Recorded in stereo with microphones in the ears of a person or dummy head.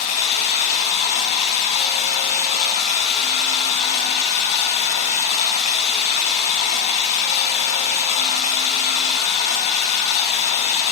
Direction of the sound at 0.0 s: 40° left (ahead or behind).